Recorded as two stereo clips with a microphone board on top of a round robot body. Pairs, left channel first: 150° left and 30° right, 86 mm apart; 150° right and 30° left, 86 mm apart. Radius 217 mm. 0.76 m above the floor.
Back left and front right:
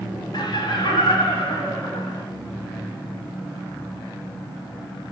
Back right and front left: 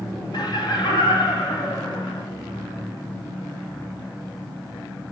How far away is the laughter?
About 2 m.